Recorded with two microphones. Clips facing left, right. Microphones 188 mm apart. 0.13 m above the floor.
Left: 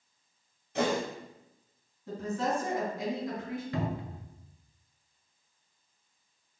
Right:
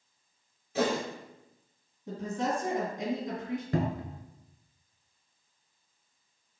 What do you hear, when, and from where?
0.8 s a whoosh: 5° right (ahead or behind), 0.9 m
2.1 s a woman speaking: 20° right (ahead or behind), 2.0 m
3.7 s a cupboard door: 45° right (ahead or behind), 0.5 m